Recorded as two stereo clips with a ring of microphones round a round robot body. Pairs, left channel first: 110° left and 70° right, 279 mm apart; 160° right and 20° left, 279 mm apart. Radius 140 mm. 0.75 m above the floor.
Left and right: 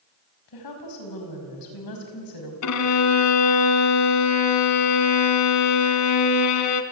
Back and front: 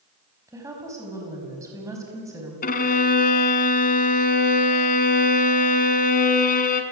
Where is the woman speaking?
100° left, 5 m.